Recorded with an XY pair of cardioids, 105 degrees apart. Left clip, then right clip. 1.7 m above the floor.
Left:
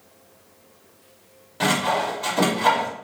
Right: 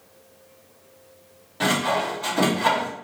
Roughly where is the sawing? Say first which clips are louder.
Left 1 dB; ahead.